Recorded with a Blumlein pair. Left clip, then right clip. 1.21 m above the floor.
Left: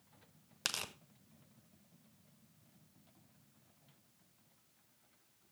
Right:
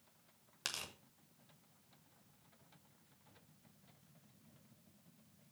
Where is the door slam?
No door slam in this recording.